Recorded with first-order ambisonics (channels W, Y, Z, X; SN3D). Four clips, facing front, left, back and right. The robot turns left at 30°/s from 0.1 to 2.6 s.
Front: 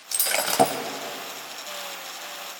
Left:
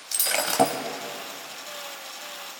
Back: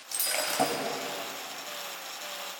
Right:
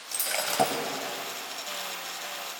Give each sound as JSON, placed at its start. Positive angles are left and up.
{"t": 0.1, "sound": "breaking glass", "azimuth_deg": 45, "distance_m": 1.1}